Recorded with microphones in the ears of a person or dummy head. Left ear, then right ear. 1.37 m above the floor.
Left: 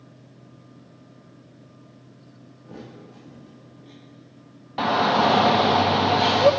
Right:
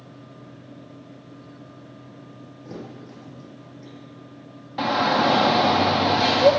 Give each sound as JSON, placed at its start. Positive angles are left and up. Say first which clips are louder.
{"t": 2.6, "sound": "a thud", "louder": "right 3 dB", "side_deg": -60, "distance_m": 7.5}
{"t": 4.8, "sound": "a shout", "louder": "left 1 dB", "side_deg": 25, "distance_m": 0.8}